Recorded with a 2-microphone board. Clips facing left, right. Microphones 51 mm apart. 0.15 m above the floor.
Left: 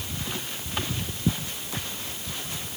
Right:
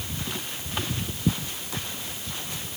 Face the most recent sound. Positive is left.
No sound to turn to.